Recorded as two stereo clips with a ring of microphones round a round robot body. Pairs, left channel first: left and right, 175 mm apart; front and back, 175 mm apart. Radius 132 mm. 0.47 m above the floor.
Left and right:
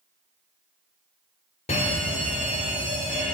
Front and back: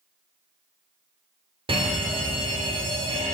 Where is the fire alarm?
130° left, 2.5 m.